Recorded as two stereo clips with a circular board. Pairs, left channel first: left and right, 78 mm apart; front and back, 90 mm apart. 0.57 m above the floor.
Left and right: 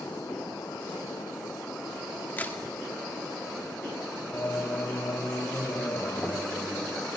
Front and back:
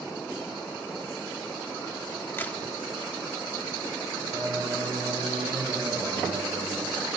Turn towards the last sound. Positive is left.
turn(degrees=145)